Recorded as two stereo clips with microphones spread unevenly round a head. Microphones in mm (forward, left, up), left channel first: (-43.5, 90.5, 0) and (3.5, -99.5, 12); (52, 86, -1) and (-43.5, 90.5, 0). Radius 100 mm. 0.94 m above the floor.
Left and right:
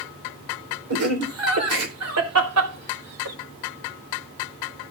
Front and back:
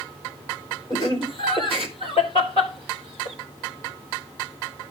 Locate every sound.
0.9 s laughter: 80° right, 3.5 m; by 3.4 s 55° right, 5 m